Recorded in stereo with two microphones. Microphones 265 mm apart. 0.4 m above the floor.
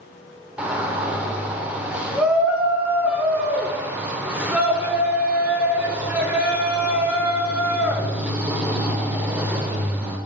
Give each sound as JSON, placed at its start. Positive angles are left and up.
{"t": 0.6, "sound": "a shout", "side_deg": -5, "distance_m": 0.9}